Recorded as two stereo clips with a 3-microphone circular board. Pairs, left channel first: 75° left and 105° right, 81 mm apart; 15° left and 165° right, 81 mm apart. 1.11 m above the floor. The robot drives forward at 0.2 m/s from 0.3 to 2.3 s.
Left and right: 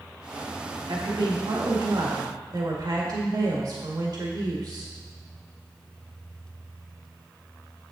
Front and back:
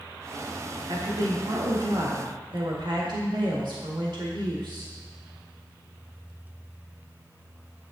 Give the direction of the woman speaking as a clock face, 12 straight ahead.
4 o'clock.